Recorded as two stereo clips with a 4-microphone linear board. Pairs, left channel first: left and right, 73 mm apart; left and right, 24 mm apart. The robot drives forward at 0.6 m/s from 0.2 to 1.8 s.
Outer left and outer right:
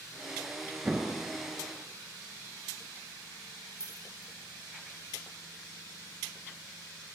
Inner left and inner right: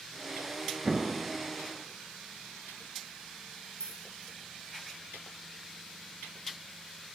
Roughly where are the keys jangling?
Left.